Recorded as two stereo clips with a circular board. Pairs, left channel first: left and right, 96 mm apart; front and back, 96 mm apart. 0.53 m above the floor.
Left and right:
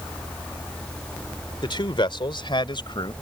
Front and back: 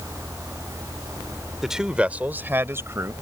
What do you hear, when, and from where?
1.6 s a man speaking: 95° left; by 3.1 s 120° left